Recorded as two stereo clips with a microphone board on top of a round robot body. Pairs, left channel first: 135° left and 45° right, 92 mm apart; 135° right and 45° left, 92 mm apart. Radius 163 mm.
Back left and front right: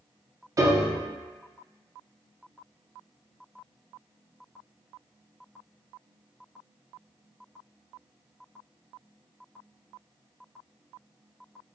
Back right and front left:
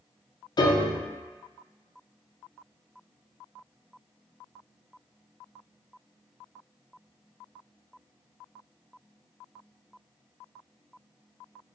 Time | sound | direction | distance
0.6 | a piano | 95° right | 0.5 m